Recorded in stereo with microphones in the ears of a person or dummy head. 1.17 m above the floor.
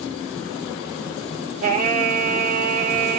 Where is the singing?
45° right (ahead or behind), 0.7 m.